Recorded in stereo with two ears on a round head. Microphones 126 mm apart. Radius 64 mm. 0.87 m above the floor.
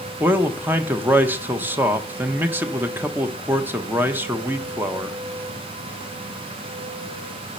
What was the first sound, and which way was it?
A man speaking, 15° right (ahead or behind).